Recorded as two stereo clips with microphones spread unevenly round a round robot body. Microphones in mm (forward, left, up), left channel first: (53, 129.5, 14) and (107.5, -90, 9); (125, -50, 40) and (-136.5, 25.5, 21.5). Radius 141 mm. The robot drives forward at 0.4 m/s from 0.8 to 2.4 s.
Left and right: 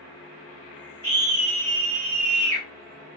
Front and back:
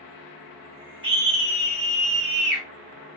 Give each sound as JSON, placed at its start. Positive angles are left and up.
{"t": 1.0, "sound": "a scream", "azimuth_deg": -125, "distance_m": 1.8}